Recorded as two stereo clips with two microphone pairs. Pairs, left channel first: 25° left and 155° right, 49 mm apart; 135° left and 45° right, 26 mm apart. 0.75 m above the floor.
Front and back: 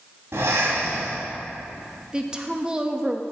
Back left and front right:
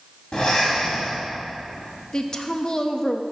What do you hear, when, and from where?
0.3 s breathing: straight behind, 2.5 m
2.1 s a woman speaking: 145° left, 0.6 m